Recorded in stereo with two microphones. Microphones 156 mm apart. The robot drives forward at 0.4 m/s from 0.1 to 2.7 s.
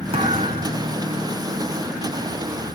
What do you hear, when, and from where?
0.1 s a thud: 35° right (ahead or behind), 4 m; by 0.9 s 40° right (ahead or behind), 3.5 m